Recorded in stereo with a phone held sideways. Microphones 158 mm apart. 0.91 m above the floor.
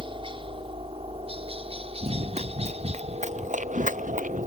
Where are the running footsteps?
40° right (ahead or behind); by 4.5 s 60° right (ahead or behind).